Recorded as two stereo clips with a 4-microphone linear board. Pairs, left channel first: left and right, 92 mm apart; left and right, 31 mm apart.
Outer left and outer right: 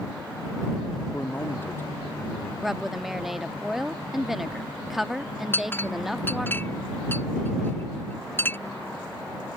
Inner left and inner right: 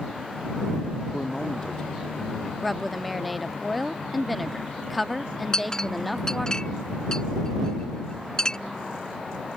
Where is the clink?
20° left (ahead or behind).